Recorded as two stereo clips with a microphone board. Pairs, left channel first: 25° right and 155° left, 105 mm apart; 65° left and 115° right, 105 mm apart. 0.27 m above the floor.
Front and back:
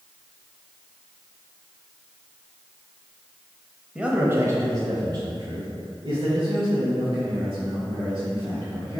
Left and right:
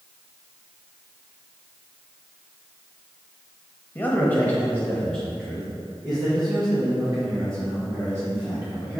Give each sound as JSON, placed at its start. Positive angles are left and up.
{"t": 4.0, "sound": "a man speaking", "azimuth_deg": 95, "distance_m": 1.1}